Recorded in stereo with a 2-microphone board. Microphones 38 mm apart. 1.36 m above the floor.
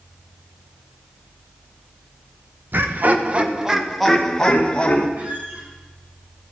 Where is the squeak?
40° right (ahead or behind), 4.5 m.